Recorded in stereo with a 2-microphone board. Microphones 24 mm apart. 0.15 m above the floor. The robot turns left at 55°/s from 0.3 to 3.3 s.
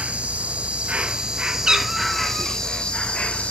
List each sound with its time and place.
0.0 s an insect: 80° right, 0.7 m; by 3.5 s 115° left, 0.7 m
1.7 s a cat meowing: 145° right, 0.6 m; by 2.6 s 165° left, 0.6 m